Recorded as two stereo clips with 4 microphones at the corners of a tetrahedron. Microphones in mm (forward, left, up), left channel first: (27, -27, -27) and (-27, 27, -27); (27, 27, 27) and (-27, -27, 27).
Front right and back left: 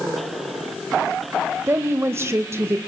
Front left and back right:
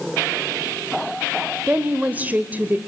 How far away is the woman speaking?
About 1.3 m.